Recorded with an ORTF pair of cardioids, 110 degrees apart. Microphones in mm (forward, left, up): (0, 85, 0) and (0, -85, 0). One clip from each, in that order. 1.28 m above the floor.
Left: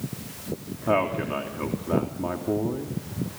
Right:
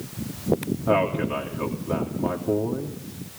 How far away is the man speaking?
About 3 m.